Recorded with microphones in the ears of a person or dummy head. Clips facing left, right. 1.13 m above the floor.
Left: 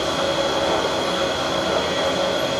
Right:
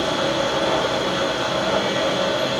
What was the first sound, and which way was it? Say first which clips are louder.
A machine running: even; 55° right (ahead or behind).